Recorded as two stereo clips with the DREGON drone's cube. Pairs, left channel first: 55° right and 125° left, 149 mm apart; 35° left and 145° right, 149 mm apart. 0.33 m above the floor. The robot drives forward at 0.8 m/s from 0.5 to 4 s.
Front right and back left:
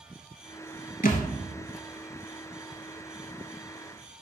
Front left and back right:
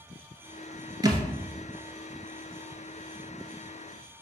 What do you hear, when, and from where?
1.0 s a thud: 80° right, 0.9 m; by 1.3 s 95° right, 0.9 m